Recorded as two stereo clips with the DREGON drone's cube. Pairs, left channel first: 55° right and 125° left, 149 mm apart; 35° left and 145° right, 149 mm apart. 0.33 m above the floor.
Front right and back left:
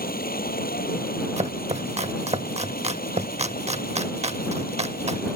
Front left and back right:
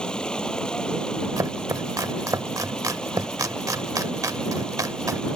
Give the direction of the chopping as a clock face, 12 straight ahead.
7 o'clock.